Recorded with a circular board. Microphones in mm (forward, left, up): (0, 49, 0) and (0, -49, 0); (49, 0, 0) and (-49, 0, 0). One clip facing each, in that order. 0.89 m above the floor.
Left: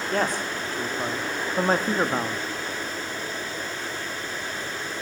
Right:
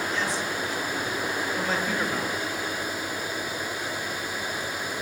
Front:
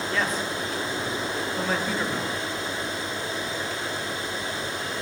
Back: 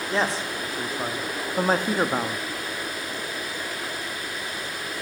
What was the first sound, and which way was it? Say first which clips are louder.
A man speaking: left 3 dB, back 3 dB; 120° left.